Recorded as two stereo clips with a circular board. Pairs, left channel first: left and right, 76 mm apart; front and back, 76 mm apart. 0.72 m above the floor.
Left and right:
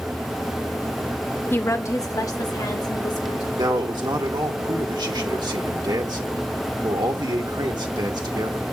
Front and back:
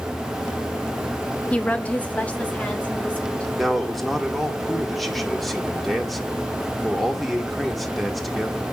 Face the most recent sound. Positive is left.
turn(degrees=-90)